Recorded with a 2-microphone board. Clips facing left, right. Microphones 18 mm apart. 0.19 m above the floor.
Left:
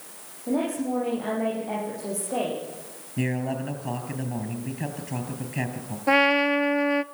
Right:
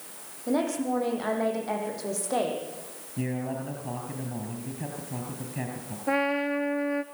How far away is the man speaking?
About 4.5 m.